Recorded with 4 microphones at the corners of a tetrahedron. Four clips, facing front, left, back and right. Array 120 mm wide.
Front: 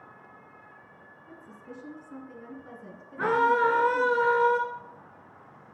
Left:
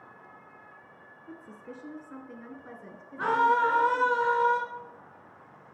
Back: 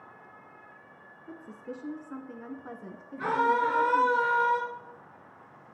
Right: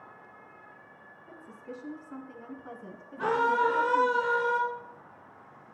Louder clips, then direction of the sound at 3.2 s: Left 2 dB, front 3 dB; straight ahead.